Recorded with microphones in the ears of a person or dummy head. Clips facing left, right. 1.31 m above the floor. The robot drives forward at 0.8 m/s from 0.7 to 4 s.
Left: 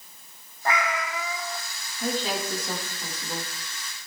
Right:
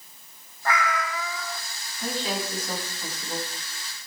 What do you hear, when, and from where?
0.7 s a cat meowing: 20° left (ahead or behind), 1.2 m; by 1.6 s 15° left (ahead or behind), 1.8 m
2.0 s a woman speaking: 35° left (ahead or behind), 10 m; by 3.5 s 30° left (ahead or behind), 11 m